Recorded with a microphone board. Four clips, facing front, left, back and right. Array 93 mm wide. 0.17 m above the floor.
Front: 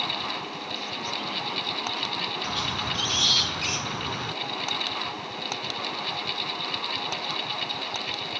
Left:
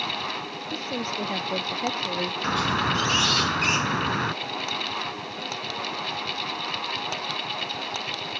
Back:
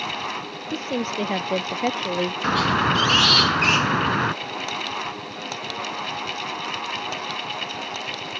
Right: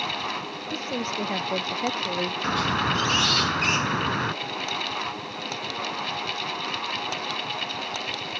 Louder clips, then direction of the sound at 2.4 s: Left 1 dB, back 14 dB; straight behind.